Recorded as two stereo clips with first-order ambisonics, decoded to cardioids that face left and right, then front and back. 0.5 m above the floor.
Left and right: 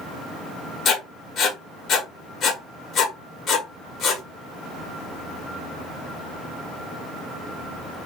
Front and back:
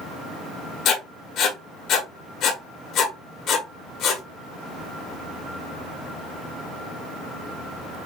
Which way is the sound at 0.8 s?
40° left.